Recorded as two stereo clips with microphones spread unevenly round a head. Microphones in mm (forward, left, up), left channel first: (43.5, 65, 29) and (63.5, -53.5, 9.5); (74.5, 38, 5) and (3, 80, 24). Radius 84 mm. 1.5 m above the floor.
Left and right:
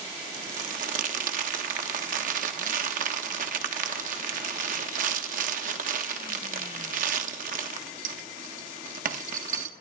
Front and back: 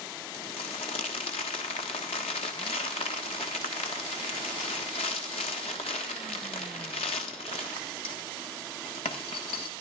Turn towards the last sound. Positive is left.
turn(degrees=-75)